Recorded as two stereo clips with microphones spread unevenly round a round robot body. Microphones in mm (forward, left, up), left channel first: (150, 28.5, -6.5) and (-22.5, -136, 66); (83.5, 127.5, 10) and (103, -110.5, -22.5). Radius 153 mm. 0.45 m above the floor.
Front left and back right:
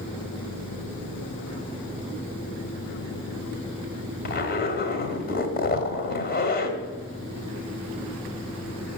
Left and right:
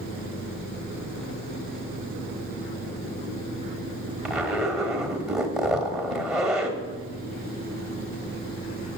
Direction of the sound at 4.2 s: Straight ahead.